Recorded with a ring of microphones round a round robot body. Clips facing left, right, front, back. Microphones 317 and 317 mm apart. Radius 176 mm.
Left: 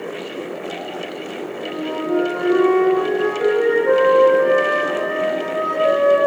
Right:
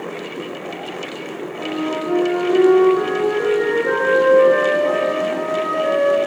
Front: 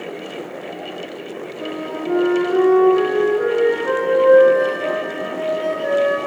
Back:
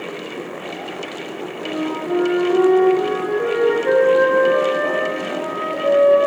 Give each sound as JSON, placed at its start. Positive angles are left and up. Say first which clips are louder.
{"t": 1.6, "sound": "a flute", "louder": "right 3 dB, back 3 dB", "azimuth_deg": -50, "distance_m": 1.4}